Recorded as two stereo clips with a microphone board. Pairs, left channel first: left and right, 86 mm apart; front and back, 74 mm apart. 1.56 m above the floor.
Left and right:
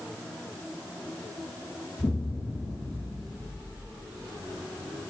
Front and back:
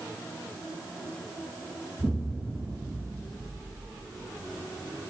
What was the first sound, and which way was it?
An explosion, 115° left.